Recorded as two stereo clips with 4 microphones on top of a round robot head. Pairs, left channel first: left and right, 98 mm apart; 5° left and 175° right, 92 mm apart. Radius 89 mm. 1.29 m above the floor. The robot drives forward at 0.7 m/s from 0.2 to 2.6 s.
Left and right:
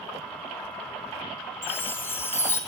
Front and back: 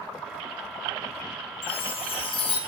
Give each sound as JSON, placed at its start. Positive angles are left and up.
{"t": 1.6, "sound": "a chime", "azimuth_deg": 20, "distance_m": 5.0}